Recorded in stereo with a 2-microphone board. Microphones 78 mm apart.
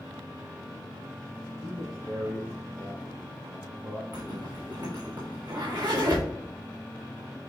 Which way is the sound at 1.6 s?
70° right (ahead or behind).